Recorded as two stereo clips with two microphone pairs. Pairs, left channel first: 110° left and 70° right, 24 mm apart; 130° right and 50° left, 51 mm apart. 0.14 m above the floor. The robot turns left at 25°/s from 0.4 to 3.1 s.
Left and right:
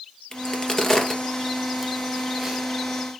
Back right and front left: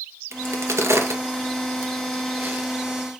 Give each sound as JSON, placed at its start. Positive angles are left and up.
{"t": 0.3, "sound": "a crack", "azimuth_deg": 55, "distance_m": 2.5}